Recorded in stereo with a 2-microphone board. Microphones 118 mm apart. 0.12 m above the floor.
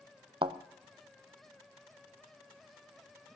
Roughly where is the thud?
Right.